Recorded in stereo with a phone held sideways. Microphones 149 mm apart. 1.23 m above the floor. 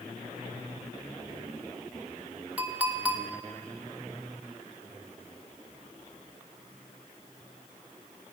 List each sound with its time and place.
2.6 s a clink: 10° right (ahead or behind), 0.9 m